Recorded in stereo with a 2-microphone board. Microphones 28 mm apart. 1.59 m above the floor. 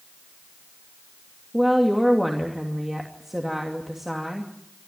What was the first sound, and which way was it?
A woman speaking, 10° right (ahead or behind).